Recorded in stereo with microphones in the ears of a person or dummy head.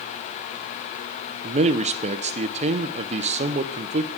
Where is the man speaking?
35° right (ahead or behind), 0.5 m.